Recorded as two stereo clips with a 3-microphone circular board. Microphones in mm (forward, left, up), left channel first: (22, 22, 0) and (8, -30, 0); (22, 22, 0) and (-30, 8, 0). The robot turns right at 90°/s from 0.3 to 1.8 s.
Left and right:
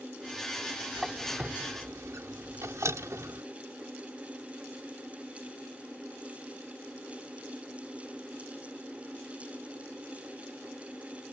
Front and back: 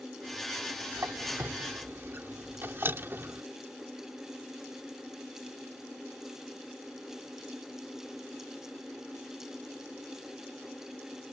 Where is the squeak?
165° left; by 3.4 s 120° right.